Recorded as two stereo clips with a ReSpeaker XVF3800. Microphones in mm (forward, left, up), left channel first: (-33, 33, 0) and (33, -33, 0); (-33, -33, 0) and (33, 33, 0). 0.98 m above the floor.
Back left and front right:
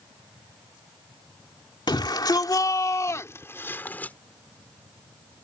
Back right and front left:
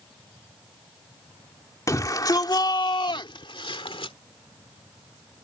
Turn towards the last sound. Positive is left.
turn(degrees=-150)